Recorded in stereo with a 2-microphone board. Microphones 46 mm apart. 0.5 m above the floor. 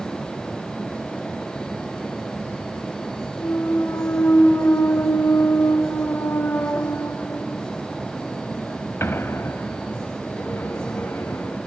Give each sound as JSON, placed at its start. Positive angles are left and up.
{"t": 3.4, "sound": "a clunk", "side_deg": 65, "distance_m": 0.6}